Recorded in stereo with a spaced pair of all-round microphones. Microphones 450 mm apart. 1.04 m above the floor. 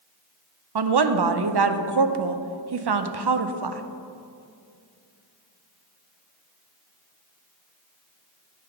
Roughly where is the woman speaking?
Right.